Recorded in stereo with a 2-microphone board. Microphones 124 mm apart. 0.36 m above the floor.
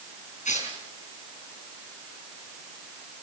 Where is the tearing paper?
75° left (ahead or behind), 6 m.